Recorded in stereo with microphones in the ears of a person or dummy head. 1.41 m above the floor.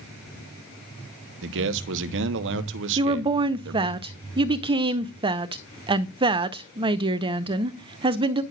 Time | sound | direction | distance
1.4 | a man speaking | 70° right (ahead or behind) | 0.9 m
3.0 | a woman speaking | 25° right (ahead or behind) | 0.7 m